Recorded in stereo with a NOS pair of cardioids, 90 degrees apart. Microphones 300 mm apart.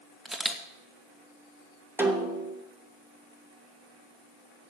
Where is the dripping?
I don't hear dripping.